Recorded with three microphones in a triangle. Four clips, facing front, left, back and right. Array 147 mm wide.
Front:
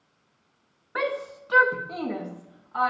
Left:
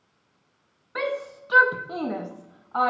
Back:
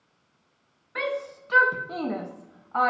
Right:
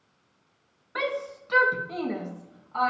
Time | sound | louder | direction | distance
0.9 | a shout | left 1 dB, front 1 dB | 5° left | 0.6 m